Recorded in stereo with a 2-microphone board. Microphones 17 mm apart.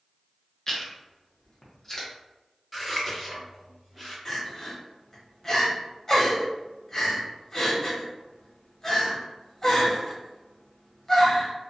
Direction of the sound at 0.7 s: 20° left (ahead or behind).